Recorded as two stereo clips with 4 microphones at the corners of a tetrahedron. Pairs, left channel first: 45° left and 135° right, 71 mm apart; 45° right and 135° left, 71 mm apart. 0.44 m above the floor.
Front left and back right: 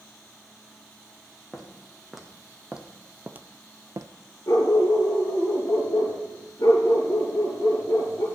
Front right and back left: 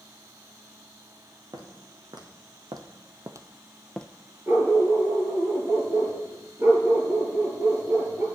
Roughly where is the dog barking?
Left.